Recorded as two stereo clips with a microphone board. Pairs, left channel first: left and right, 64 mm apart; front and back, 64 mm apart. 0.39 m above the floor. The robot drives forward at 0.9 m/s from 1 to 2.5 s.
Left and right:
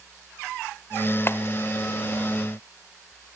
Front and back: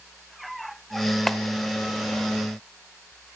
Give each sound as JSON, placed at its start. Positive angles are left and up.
{"t": 1.3, "sound": "a clap", "azimuth_deg": 80, "distance_m": 0.9}